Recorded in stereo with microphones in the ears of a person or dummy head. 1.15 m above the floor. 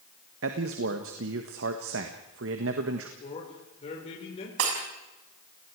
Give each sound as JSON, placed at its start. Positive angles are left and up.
{"t": 0.4, "sound": "a man speaking", "side_deg": -60, "distance_m": 1.5}
{"t": 3.2, "sound": "a man speaking", "side_deg": 40, "distance_m": 5.0}
{"t": 4.6, "sound": "breaking glass", "side_deg": -85, "distance_m": 5.5}